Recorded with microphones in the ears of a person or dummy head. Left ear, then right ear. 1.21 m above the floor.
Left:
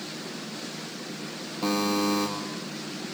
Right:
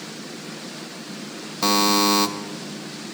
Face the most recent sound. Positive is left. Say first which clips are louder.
# right 8 dB
turn(degrees=-50)  # may be behind; listen again after turning